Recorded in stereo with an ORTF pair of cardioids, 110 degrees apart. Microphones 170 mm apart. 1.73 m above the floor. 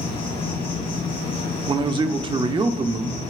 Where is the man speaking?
30° right, 0.8 m.